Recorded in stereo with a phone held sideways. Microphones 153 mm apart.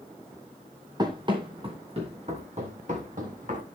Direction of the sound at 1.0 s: 30° right (ahead or behind).